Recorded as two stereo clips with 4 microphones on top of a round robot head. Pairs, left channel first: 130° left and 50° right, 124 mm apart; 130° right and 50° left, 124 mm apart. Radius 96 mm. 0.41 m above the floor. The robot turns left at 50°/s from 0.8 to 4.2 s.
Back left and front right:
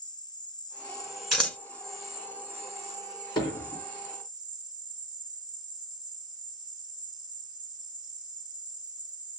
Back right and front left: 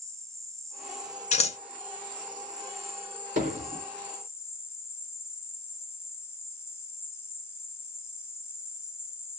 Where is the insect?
100° left, 1.0 m; by 9.4 s 70° right, 1.0 m.